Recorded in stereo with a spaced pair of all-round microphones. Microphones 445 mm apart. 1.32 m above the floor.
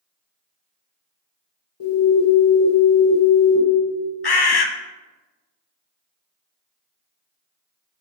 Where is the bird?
60° left (ahead or behind), 0.5 m.